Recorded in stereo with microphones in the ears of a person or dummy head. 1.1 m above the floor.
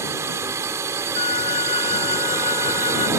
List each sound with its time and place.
0.0 s a drone: 15° right (ahead or behind)
1.1 s a flute: 35° left (ahead or behind)